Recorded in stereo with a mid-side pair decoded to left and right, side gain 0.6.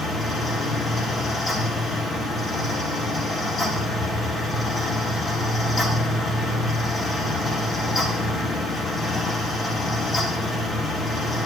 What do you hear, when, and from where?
0.0 s a fan: 25° left, 1.9 m